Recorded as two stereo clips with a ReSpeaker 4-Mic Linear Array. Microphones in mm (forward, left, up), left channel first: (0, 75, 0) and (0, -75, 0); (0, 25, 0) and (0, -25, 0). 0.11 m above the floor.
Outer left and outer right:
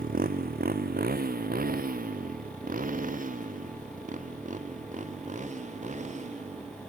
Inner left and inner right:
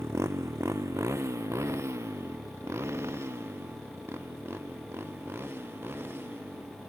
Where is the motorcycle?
65° right (ahead or behind); by 6.9 s 50° right (ahead or behind).